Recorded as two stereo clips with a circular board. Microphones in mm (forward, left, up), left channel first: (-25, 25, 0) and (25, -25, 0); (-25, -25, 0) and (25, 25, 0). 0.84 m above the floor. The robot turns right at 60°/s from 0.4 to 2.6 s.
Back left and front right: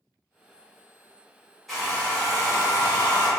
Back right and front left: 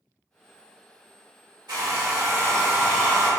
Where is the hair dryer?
50° left, 1.3 m; by 3.3 s 105° left, 1.3 m.